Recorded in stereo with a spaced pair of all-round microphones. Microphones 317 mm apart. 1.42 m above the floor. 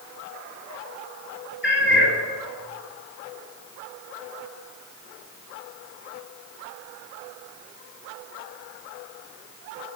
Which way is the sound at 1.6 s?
40° left (ahead or behind).